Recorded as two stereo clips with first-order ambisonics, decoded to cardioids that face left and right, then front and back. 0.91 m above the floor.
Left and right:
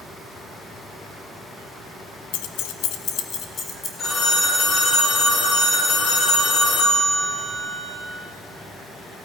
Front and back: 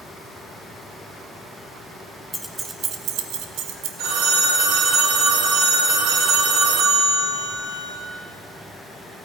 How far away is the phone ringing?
About 2.5 m.